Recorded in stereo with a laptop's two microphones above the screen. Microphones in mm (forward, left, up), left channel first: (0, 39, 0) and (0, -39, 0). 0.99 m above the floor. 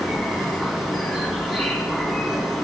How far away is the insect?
About 2 m.